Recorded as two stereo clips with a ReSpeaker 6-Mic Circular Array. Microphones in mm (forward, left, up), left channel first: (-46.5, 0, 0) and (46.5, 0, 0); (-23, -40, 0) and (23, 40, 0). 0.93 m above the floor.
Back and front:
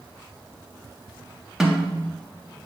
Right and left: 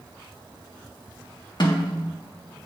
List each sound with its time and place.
1.6 s a snare drum: 85° right, 1.6 m